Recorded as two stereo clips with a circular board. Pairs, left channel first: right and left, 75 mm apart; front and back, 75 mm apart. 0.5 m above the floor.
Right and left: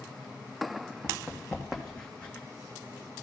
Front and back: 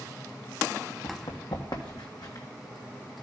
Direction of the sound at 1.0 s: 10° left.